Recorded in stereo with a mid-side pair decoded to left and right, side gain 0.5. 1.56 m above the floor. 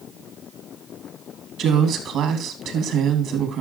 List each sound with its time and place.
1.6 s a woman speaking: 70° right, 3 m